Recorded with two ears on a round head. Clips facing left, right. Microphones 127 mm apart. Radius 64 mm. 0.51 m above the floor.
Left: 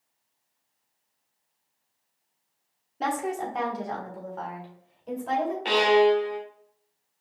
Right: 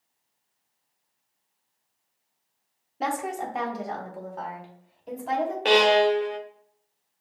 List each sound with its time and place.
3.0 s a woman speaking: 5° right (ahead or behind), 1.0 m
5.7 s a violin: 60° right (ahead or behind), 0.8 m